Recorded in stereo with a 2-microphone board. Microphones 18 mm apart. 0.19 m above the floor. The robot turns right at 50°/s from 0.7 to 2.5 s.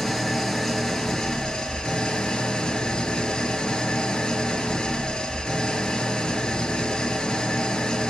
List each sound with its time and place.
0.0 s an engine running: 25° left, 0.8 m; by 8.1 s 115° left, 0.8 m